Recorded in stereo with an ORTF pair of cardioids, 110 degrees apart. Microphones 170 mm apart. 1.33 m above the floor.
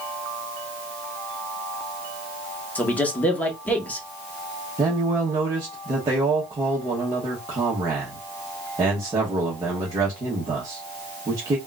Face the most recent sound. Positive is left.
turn(degrees=-20)